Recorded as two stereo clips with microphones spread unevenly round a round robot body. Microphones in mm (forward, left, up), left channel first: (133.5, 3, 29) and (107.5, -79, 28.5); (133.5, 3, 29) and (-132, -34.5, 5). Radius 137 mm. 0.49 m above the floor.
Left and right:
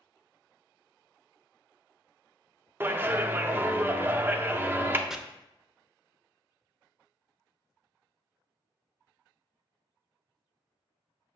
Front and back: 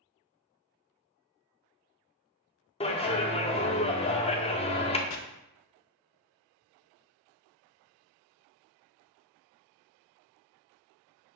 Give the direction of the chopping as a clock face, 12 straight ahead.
1 o'clock.